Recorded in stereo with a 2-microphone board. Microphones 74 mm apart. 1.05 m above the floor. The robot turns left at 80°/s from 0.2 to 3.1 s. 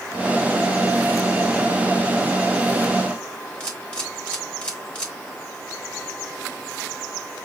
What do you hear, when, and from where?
3.6 s a camera shutter: 15° left (ahead or behind), 2 m